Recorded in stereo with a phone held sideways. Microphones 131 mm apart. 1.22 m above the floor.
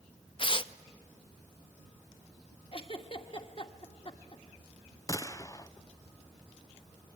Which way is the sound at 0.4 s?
40° left (ahead or behind).